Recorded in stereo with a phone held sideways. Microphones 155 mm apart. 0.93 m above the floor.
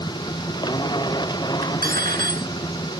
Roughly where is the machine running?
Left.